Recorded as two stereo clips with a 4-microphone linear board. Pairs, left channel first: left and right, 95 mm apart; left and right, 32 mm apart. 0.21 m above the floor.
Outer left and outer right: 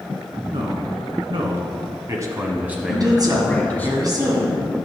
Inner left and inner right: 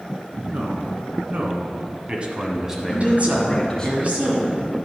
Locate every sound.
0.5 s a man speaking: 65° right (ahead or behind), 2 m; by 3.9 s 20° left (ahead or behind), 1.3 m
2.9 s a woman speaking: 45° right (ahead or behind), 2.5 m